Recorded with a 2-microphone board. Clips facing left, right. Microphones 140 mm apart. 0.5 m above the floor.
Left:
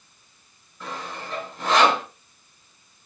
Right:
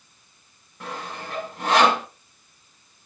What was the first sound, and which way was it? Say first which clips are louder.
Sawing: even; 75° right (ahead or behind).